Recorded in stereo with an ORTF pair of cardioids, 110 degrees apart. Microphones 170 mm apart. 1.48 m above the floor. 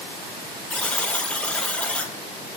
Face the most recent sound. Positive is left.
turn(degrees=5)